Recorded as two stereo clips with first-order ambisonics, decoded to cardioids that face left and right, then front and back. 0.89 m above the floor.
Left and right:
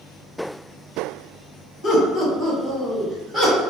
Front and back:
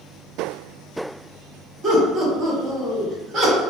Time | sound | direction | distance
1.8 | laughter | 120° left | 1.0 m